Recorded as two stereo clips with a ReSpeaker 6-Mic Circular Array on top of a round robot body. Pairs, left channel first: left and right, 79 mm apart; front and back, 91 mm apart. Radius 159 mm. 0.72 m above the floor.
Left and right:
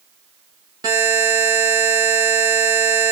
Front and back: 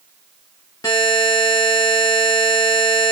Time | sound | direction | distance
0.8 | a buzzer | 55° right | 0.6 m